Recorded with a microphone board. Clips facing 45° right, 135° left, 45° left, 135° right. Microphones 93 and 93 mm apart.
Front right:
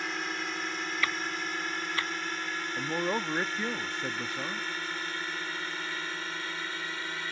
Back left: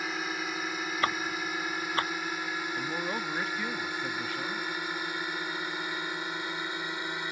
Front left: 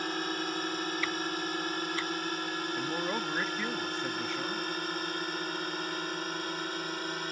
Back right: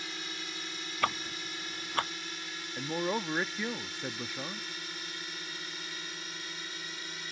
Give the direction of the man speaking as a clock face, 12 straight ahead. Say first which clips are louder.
Front right 6 dB, back right 4 dB; 2 o'clock.